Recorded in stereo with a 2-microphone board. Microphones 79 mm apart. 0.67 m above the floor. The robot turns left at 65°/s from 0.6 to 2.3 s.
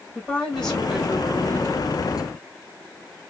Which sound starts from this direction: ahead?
A woman speaking, at 0.1 s.